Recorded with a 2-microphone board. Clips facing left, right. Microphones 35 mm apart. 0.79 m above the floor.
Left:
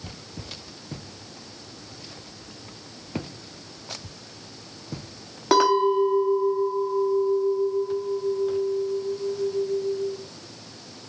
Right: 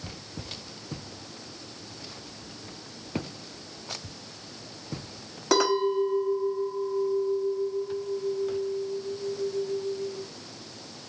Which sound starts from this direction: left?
A clink, at 5.5 s.